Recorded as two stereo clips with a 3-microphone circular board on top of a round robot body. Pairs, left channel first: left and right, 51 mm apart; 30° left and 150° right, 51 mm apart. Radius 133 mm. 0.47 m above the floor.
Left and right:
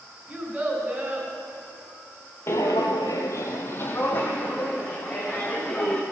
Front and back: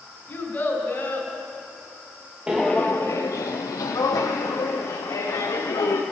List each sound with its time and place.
0.3 s a child speaking: 25° right, 3 m
2.5 s footsteps: 135° left, 0.6 m; by 6.0 s 20° left, 2.5 m